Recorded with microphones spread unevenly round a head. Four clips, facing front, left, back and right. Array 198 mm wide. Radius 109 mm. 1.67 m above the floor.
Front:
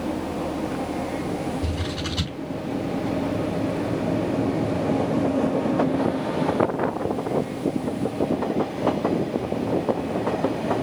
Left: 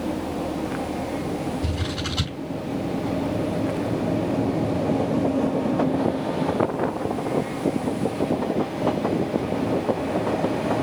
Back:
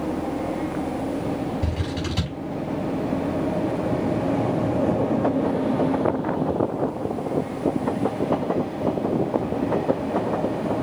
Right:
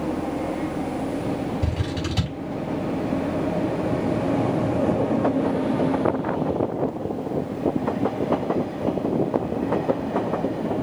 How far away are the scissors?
About 7 m.